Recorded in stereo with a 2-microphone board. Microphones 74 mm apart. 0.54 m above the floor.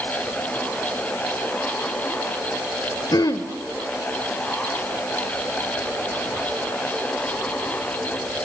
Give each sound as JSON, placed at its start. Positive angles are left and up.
{"t": 3.1, "sound": "throat clearing", "side_deg": 65, "distance_m": 1.5}